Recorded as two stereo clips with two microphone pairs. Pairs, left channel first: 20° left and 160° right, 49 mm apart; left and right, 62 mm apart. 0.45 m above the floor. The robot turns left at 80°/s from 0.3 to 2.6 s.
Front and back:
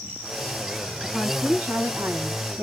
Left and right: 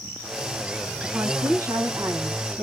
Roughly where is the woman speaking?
Ahead right.